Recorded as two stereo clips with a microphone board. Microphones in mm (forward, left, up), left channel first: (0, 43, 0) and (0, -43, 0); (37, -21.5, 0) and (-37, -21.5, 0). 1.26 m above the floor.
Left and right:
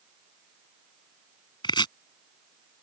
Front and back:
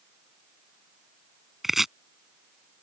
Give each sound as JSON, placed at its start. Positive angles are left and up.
{"t": 1.6, "sound": "chopping", "azimuth_deg": 95}